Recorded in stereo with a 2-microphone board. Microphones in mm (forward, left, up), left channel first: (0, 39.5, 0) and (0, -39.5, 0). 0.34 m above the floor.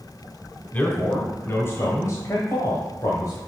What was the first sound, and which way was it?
A man speaking, 20° left (ahead or behind).